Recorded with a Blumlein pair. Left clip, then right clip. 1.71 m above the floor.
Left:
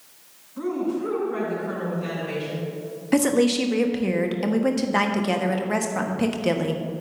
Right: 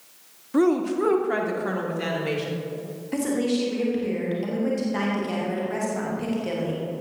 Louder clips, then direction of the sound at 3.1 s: Left 5 dB; 25° left.